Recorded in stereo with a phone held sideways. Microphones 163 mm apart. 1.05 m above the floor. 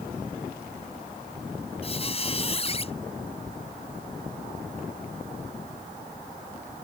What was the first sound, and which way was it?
A squeak, 35° left (ahead or behind).